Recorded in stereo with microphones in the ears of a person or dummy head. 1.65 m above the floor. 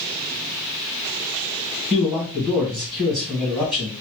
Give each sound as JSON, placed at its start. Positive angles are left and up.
{"t": 1.9, "sound": "a man speaking", "side_deg": -30, "distance_m": 1.8}